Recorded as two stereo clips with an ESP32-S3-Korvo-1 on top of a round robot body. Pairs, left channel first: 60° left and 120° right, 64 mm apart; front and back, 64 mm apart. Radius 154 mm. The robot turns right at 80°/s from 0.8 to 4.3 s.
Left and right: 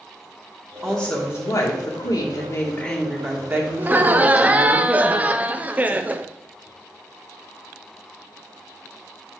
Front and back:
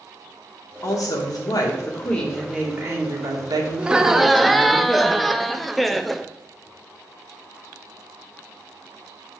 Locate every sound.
0.8 s a woman speaking: 30° right, 2 m; by 4.8 s 110° right, 2 m
3.8 s laughter: 130° right, 0.6 m; by 6.3 s 85° right, 0.6 m